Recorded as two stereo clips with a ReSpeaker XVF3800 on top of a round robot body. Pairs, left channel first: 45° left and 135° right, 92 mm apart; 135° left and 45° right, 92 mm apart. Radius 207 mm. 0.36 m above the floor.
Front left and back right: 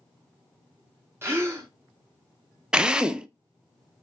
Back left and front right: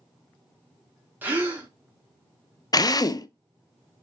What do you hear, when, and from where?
1.2 s a gasp: 95° right, 1.5 m
2.7 s a drill: 150° left, 0.6 m